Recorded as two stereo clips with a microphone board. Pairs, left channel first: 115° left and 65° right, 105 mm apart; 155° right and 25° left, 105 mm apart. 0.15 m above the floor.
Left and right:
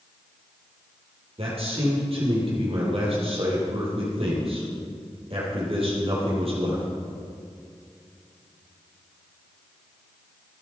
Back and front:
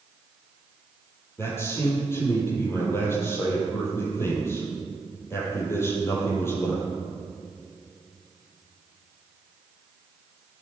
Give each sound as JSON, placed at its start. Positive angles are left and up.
{"t": 1.4, "sound": "a man speaking", "azimuth_deg": -90, "distance_m": 4.5}